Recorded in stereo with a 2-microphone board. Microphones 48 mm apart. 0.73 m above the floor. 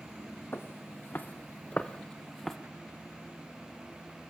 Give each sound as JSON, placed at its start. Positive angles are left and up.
{"t": 0.5, "sound": "footsteps", "side_deg": 50, "distance_m": 1.7}